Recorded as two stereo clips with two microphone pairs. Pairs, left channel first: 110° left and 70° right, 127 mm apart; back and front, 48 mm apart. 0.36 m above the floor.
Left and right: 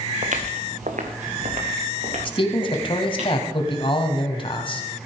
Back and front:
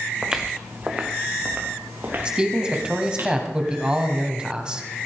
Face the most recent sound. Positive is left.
turn(degrees=70)